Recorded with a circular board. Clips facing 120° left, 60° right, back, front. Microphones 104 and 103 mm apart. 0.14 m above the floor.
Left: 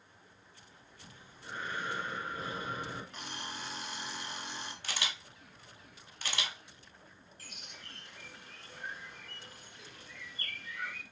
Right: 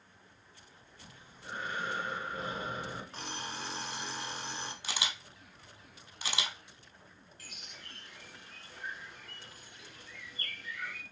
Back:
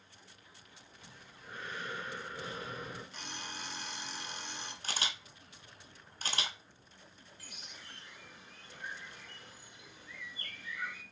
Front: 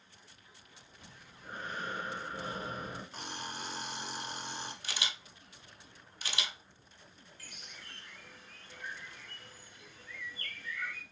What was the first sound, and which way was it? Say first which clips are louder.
Breathing: right 1 dB, front 2 dB; straight ahead.